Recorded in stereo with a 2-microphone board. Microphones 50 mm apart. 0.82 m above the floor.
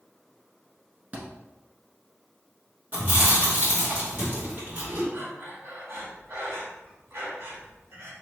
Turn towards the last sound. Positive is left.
turn(degrees=-65)  # may be behind; listen again after turning